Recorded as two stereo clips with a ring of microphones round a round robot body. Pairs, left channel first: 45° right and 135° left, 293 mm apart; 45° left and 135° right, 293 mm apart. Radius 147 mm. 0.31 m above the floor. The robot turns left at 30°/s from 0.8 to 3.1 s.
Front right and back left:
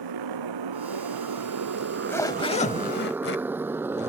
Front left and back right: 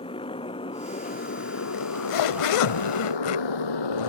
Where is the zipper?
50° left; by 4.1 s 10° left.